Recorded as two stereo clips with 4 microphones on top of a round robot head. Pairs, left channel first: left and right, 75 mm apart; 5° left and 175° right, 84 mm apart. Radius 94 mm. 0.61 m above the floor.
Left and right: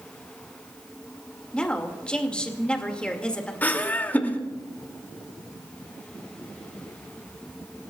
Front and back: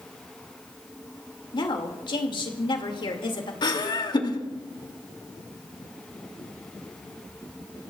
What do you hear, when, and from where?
1.5 s a woman speaking: 15° left, 2.5 m
3.6 s laughter: 25° left, 2.5 m